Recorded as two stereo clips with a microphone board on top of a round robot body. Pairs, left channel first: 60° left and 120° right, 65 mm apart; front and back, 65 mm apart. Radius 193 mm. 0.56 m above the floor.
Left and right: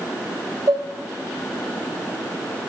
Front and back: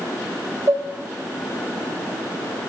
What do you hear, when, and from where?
0.7 s dishes clattering: 140° right, 1.8 m